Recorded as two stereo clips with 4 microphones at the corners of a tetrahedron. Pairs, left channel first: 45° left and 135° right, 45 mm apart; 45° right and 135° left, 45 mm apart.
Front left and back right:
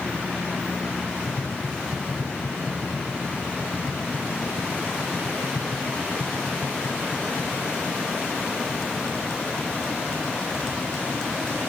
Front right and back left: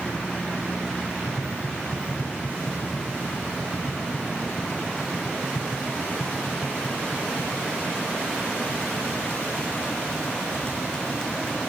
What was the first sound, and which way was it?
Tapping, 15° right.